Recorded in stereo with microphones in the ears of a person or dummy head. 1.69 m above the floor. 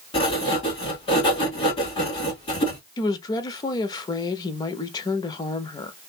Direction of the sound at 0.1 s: 30° left (ahead or behind).